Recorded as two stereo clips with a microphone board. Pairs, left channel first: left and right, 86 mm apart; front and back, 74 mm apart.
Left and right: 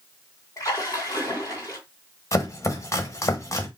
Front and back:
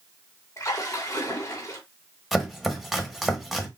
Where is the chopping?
95° left, 1.1 m.